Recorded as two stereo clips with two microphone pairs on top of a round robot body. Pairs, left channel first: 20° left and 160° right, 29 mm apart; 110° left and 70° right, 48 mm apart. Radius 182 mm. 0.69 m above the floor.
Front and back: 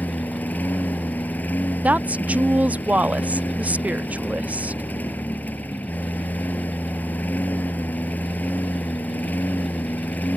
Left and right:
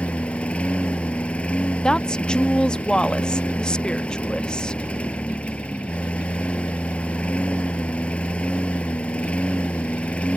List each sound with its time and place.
0.0 s a lawn mower: 40° left
1.8 s a woman speaking: straight behind